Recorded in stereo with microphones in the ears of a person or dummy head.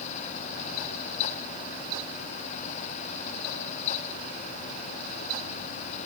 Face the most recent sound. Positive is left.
No sound to turn to.